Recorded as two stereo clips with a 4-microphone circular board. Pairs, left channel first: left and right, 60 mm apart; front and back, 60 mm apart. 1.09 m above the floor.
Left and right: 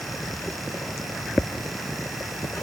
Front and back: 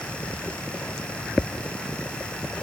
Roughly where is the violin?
No violin in this recording.